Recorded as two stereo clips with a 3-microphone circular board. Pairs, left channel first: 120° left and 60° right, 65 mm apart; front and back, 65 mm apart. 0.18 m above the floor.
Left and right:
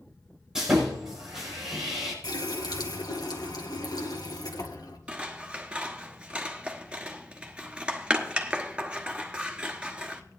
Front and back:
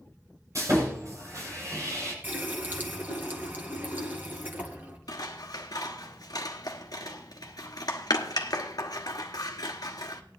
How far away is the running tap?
About 1.8 m.